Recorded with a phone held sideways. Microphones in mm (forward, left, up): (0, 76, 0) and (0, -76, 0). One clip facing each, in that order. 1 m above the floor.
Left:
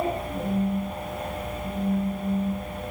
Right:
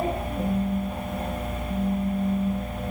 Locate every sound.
0.3 s a phone buzzing: 60° left (ahead or behind), 3.5 m